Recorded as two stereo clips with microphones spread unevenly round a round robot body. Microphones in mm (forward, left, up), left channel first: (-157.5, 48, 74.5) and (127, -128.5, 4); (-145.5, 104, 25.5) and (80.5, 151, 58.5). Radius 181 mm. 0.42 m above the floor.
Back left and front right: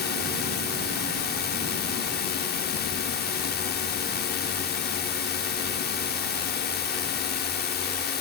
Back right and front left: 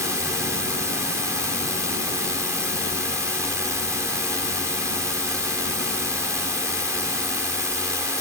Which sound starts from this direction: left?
A drone, at 0.0 s.